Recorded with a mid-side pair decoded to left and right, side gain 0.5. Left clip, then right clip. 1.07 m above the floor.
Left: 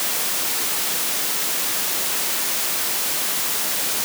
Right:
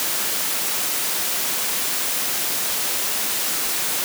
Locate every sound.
Only background noise.